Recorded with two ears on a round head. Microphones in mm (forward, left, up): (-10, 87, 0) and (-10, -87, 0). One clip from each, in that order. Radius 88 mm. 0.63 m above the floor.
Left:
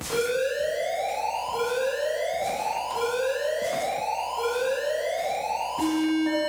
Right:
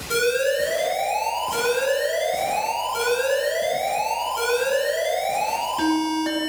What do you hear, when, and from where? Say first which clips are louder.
0.1 s an alarm: right 5 dB; 60° right (ahead or behind), 2.5 m